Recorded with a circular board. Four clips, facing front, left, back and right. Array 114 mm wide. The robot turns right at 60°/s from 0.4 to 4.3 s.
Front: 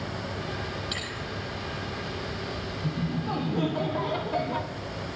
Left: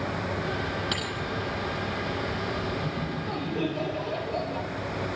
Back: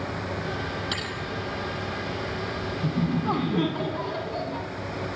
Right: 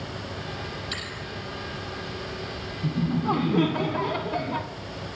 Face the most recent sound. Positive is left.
turn(degrees=-65)